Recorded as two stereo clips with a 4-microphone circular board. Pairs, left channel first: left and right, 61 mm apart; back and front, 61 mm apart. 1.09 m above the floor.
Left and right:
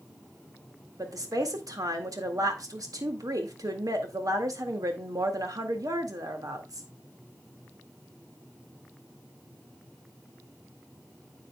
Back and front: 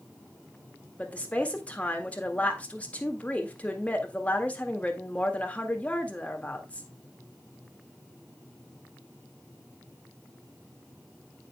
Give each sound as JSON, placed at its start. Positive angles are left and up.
{"t": 1.0, "sound": "a woman speaking", "azimuth_deg": -110, "distance_m": 1.8}